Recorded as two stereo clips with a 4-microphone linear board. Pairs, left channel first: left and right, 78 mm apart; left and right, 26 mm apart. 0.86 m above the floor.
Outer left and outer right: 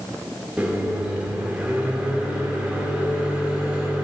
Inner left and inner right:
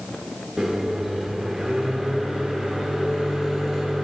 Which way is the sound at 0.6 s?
15° right (ahead or behind).